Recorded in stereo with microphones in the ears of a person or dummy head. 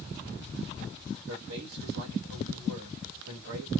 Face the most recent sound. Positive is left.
turn(degrees=-85)